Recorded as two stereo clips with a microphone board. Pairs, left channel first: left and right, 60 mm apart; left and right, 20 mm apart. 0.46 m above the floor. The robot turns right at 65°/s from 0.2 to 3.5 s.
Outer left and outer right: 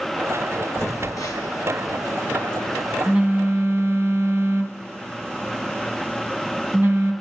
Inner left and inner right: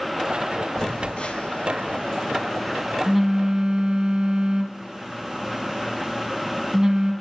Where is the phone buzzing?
45° left (ahead or behind), 2.0 m; by 7.1 s 45° right (ahead or behind), 2.0 m.